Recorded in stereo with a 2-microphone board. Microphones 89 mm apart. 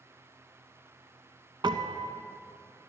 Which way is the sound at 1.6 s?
60° right (ahead or behind).